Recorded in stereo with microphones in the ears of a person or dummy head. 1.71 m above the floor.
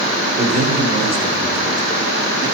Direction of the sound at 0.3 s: 40° right (ahead or behind).